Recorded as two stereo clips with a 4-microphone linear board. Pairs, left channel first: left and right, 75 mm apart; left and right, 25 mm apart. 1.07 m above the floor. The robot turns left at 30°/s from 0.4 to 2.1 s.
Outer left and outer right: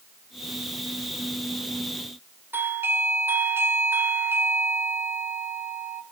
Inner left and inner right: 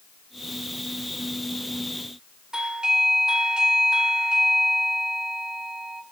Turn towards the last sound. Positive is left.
turn(degrees=-30)  # may be behind; listen again after turning